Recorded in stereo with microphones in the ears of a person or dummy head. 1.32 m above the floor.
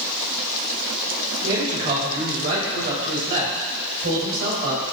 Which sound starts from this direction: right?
A man speaking, at 1.4 s.